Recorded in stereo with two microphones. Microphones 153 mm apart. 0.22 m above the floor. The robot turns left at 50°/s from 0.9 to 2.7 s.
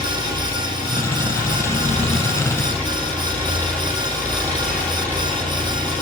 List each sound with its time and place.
0.0 s an engine running: 100° left, 8 m; by 6.0 s 10° left, 8 m